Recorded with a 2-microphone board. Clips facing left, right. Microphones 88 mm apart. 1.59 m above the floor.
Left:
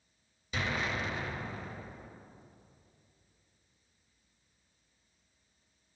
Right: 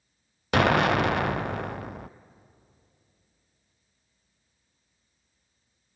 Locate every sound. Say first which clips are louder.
0.5 s an explosion: right 14 dB; 70° right (ahead or behind), 0.6 m